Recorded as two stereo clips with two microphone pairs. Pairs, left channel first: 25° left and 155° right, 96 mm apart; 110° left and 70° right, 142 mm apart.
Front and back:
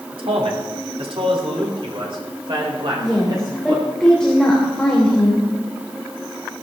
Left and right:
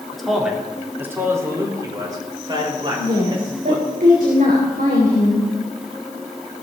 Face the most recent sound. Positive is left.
turn(degrees=-60)